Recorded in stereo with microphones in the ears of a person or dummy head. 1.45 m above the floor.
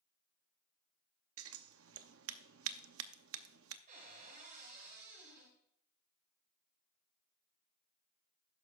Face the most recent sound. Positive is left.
turn(degrees=-45)  # may be behind; listen again after turning